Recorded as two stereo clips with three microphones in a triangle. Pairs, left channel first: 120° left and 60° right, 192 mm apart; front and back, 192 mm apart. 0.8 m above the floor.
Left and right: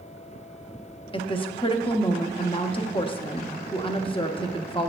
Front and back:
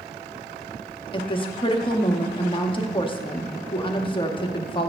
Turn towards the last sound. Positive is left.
turn(degrees=60)